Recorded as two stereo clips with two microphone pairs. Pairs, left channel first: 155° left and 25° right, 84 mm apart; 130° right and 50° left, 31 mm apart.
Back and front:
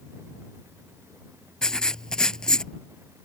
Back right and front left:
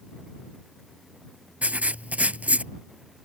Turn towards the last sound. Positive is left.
turn(degrees=75)